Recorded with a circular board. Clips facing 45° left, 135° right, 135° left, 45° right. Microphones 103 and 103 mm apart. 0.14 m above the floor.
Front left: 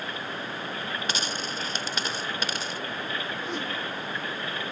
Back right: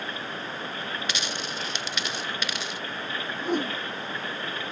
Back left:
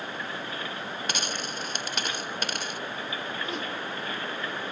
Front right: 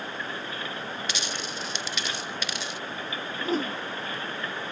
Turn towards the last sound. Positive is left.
turn(degrees=-100)